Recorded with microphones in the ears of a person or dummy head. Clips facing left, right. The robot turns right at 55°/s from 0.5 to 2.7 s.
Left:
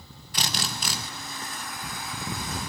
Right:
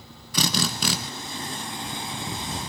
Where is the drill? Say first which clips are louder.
Right 7 dB; 70° right (ahead or behind), 1.3 m; by 1.0 s 50° right (ahead or behind), 1.3 m.